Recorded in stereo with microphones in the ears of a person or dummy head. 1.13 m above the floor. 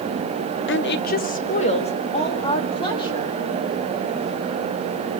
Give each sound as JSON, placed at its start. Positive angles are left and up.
{"t": 0.7, "sound": "a woman speaking", "side_deg": 50, "distance_m": 0.7}